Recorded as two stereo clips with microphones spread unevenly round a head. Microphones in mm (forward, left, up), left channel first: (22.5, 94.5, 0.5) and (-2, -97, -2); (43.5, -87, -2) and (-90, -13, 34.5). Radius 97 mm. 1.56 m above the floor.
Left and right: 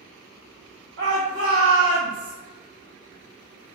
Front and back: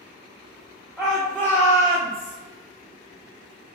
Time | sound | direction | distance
1.0 | a shout | 130° right | 1.1 m